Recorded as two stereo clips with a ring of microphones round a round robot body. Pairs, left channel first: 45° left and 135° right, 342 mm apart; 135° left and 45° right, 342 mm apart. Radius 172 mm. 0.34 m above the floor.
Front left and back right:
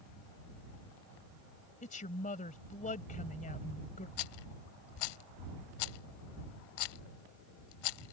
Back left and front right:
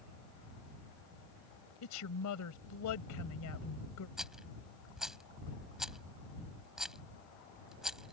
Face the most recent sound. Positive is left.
turn(degrees=45)